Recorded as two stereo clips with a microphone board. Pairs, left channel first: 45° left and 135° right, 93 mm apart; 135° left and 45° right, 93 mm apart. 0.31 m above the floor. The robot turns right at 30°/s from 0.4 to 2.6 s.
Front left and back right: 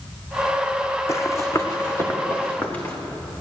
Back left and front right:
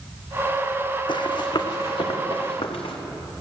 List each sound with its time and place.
1.1 s running footsteps: 105° left, 1.1 m; by 2.9 s 115° left, 3 m